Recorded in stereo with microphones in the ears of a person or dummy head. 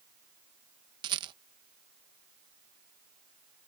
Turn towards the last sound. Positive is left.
turn(degrees=-25)  # may be behind; listen again after turning